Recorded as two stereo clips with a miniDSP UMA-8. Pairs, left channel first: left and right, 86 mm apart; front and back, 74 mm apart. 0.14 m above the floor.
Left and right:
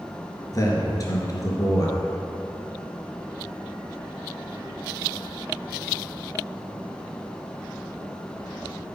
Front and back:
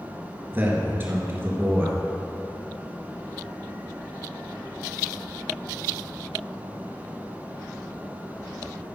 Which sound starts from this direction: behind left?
A man speaking, at 0.5 s.